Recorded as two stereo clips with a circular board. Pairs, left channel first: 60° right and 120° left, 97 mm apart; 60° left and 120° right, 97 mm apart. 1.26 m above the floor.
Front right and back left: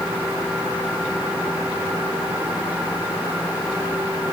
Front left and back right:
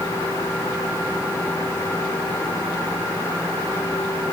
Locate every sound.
Only background noise.